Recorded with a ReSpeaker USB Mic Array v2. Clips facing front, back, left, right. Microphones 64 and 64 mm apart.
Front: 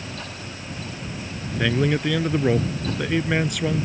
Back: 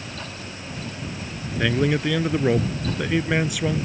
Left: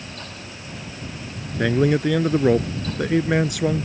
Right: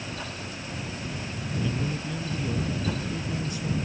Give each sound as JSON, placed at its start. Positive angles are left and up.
{"t": 1.6, "sound": "a man speaking", "azimuth_deg": 95}